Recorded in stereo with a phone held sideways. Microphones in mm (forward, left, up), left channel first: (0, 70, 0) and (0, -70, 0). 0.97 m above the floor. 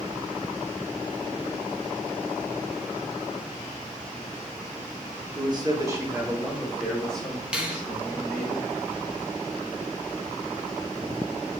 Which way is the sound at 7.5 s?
10° right (ahead or behind).